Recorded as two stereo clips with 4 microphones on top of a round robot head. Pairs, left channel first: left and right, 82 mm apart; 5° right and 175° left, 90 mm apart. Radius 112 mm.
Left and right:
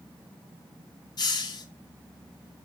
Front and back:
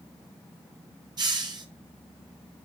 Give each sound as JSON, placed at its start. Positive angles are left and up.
{"t": 1.2, "sound": "a hiss", "azimuth_deg": 130, "distance_m": 1.8}